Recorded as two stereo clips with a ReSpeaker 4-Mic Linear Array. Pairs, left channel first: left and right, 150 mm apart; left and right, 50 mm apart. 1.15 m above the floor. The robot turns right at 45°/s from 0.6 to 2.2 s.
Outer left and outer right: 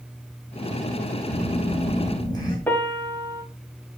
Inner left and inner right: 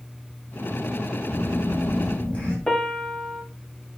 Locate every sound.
1.3 s a phone buzzing: 110° left, 2.5 m; by 2.6 s 150° left, 2.5 m
2.7 s a piano: 10° left (ahead or behind), 1.0 m